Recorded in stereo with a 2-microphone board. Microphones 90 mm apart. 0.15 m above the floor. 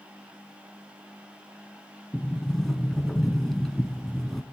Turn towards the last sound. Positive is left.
turn(degrees=5)  # may be behind; listen again after turning